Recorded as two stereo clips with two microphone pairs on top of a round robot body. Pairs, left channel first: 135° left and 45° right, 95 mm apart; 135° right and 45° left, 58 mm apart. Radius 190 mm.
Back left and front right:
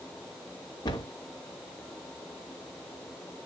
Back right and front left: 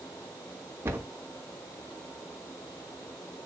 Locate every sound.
0.8 s a cupboard door: 95° left, 3 m